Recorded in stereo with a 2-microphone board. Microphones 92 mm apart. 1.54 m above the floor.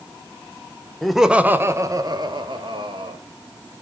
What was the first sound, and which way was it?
Laughter, 5° left (ahead or behind).